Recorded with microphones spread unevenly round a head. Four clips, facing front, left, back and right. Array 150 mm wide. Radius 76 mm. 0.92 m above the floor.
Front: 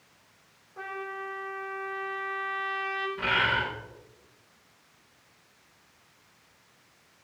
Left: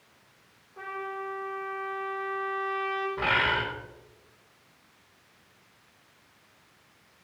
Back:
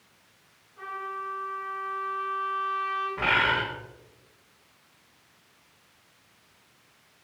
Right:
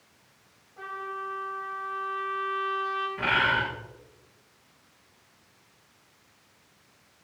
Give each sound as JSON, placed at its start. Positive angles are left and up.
{"t": 0.8, "sound": "a trumpet", "azimuth_deg": 40, "distance_m": 3.5}
{"t": 3.2, "sound": "a bird", "azimuth_deg": 135, "distance_m": 2.5}